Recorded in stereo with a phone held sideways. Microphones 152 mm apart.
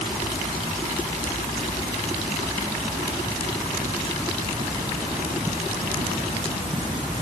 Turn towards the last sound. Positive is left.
No sound to turn to.